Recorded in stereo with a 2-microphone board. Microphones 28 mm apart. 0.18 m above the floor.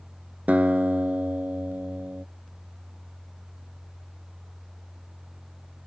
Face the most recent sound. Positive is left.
turn(degrees=-70)  # may be behind; listen again after turning